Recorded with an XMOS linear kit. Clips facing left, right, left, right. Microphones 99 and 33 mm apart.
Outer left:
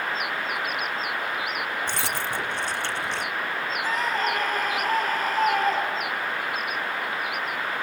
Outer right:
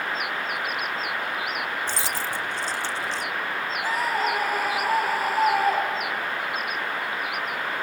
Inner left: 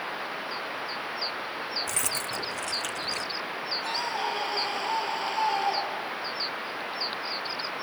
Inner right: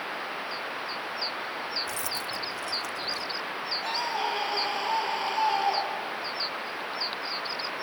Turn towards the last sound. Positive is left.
turn(degrees=-10)  # may be behind; listen again after turning